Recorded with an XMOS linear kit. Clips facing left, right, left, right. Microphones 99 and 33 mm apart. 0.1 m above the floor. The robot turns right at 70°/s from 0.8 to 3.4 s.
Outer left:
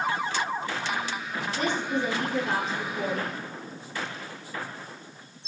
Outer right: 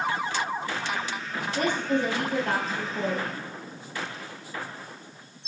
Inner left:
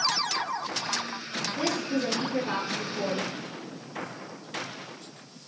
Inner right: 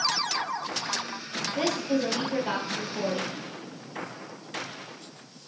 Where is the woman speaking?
130° right, 2 m; by 3.5 s straight ahead, 2 m.